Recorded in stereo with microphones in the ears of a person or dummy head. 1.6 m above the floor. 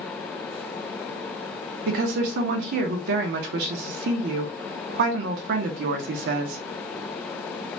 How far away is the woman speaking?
About 0.6 m.